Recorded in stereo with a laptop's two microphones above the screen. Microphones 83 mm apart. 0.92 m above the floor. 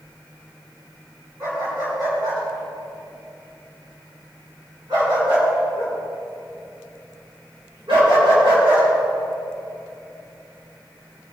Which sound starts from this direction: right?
A dog barking, at 1.4 s.